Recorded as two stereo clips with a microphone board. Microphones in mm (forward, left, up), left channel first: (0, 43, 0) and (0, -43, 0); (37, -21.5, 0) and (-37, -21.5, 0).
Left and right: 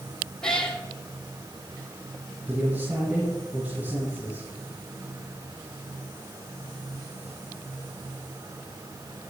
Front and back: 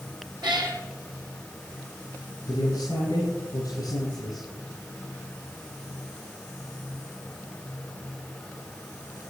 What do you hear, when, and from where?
0.4 s a cat meowing: 170° left, 2.5 m
2.5 s a man speaking: 30° right, 6 m